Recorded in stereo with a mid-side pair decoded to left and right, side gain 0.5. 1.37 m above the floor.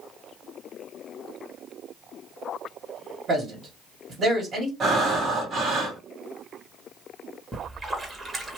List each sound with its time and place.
3.3 s a man speaking: 50° right, 1.5 m
4.8 s breathing: 50° right, 1.6 m
7.5 s a splash: 25° right, 1.3 m